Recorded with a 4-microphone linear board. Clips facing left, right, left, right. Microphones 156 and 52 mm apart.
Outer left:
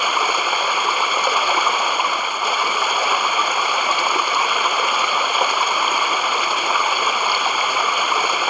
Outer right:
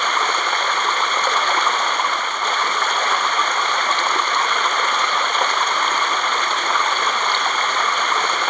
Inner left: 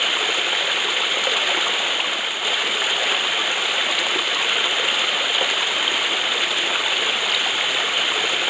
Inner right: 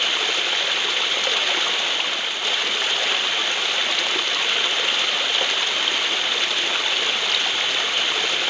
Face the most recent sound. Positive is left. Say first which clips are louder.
# outer left 1 dB, inner left 1 dB
turn(degrees=10)  # may be behind; listen again after turning